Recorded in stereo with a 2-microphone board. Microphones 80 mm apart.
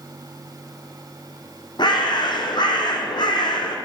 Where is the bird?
70° left (ahead or behind), 1.2 m.